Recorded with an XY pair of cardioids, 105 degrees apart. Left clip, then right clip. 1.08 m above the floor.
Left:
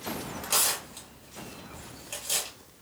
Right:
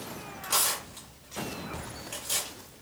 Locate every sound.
0.4 s tearing paper: 15° left, 2.5 m